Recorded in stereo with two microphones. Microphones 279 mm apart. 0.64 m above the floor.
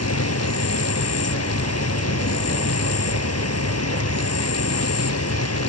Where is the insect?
65° left (ahead or behind).